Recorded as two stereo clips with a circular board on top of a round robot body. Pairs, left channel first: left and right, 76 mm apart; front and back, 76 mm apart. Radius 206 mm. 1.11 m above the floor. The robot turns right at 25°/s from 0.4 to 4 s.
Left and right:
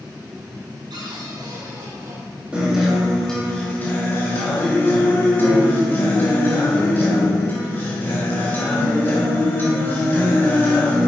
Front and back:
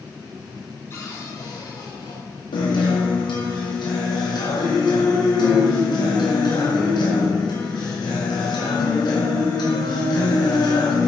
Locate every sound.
0.9 s a cupboard door: 60° right, 1.8 m; by 2.2 s 25° right, 1.8 m
2.5 s a guitar: 10° right, 2.5 m; by 11.1 s 25° left, 2.5 m